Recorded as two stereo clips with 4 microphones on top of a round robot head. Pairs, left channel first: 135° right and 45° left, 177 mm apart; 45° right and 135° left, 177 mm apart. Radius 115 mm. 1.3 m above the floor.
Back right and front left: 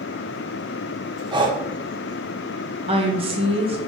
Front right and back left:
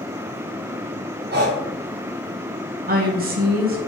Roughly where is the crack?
I don't hear a crack.